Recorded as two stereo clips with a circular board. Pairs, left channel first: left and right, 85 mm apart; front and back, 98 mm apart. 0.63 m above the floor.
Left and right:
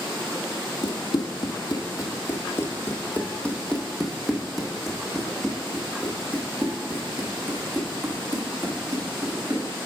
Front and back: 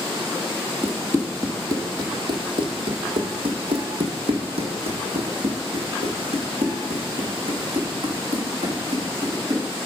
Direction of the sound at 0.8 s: 110° left.